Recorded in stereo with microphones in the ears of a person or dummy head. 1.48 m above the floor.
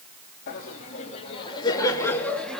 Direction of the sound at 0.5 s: 50° left (ahead or behind).